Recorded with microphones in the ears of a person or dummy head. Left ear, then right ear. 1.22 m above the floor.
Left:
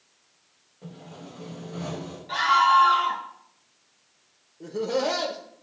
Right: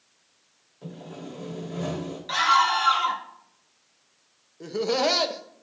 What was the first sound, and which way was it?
Sawing, 50° right (ahead or behind).